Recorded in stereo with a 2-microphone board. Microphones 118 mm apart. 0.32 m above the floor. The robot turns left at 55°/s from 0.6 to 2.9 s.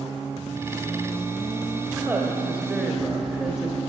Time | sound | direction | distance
1.9 | a woman speaking | 25° right (ahead or behind) | 0.9 m